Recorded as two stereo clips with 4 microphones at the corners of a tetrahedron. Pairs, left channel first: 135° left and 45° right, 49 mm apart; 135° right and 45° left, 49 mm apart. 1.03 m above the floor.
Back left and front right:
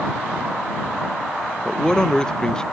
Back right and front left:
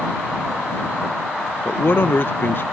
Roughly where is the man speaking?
Behind right.